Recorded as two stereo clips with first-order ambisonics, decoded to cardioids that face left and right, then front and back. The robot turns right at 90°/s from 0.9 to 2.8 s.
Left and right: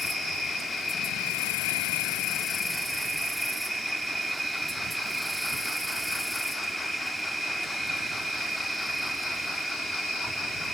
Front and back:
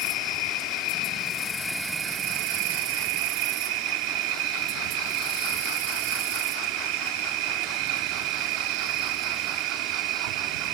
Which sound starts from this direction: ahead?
An insect, at 0.0 s.